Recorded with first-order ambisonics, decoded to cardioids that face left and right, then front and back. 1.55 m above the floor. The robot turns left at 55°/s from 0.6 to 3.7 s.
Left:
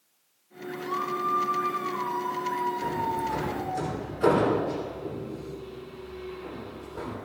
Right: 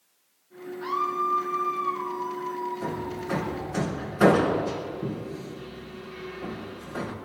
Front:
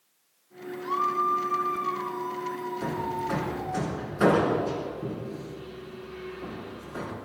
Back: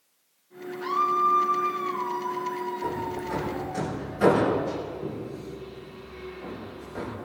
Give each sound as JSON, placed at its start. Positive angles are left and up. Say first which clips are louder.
{"t": 0.8, "sound": "a scream", "louder": "right 3 dB, back 3 dB", "azimuth_deg": -145, "distance_m": 2.5}
{"t": 2.8, "sound": "hammering", "louder": "left 4 dB, even", "azimuth_deg": -10, "distance_m": 4.5}